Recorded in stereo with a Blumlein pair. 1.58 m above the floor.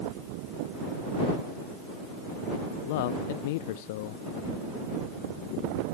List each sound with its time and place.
2.8 s a man speaking: 50° left